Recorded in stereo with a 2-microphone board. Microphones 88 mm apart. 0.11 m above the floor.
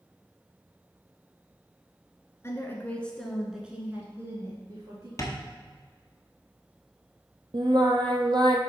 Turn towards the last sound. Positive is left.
turn(degrees=-55)  # may be behind; listen again after turning